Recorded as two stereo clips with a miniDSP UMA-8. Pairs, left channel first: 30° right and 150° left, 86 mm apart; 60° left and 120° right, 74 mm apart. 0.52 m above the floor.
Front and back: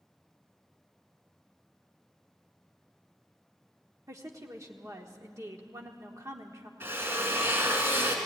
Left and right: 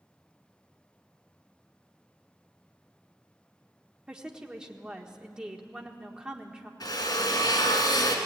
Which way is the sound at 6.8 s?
85° left.